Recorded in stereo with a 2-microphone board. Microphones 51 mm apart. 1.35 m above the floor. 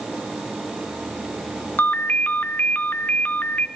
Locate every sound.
1.8 s a ringtone: 35° left (ahead or behind), 1.5 m